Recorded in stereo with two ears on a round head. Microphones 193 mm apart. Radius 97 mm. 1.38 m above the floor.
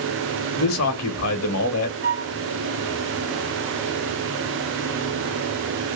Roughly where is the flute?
Right.